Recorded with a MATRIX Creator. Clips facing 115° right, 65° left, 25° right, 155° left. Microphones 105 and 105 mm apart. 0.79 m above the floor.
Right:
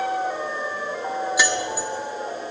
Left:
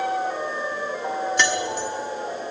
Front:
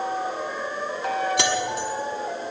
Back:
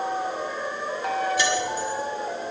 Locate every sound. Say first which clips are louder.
1.4 s keys jangling: even, even; 30° right, 1.2 m